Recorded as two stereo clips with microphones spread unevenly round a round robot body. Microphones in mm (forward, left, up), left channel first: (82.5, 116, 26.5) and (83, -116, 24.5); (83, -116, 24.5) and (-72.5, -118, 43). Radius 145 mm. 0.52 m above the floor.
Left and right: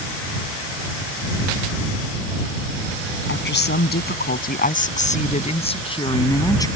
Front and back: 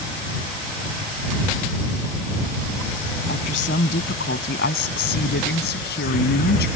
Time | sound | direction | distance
3.3 | a woman speaking | 50° left | ?